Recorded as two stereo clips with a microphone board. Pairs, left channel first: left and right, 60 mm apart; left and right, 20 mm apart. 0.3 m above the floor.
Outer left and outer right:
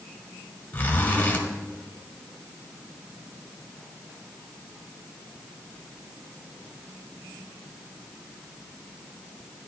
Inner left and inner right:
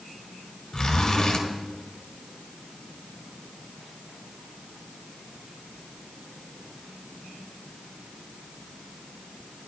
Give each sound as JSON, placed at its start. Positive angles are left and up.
{"t": 0.7, "sound": "a zipper", "side_deg": 25, "distance_m": 1.1}